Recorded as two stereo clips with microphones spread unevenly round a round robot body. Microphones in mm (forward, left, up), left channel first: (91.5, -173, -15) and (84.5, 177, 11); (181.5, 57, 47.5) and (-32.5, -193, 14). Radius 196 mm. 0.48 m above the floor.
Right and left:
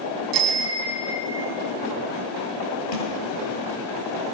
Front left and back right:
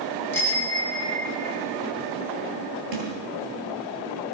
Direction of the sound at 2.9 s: 125° right.